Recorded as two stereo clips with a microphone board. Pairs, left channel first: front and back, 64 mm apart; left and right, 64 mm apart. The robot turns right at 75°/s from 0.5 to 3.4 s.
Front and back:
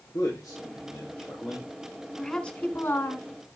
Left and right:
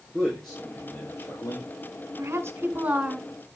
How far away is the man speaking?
About 5.5 m.